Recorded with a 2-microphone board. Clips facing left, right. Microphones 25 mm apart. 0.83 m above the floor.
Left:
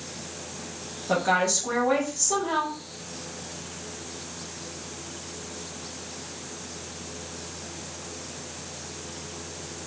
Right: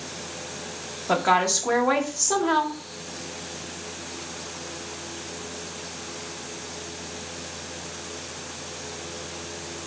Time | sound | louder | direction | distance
1.1 | a woman speaking | right 2 dB | 30° right (ahead or behind) | 0.7 m